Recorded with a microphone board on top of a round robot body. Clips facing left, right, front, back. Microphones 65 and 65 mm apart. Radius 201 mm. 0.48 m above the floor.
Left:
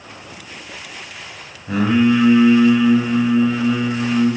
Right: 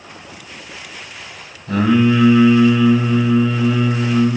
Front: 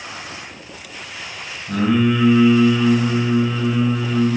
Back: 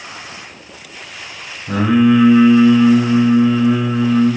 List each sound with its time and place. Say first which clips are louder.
1.7 s singing: right 1 dB, back 5 dB; 165° left, 5.5 m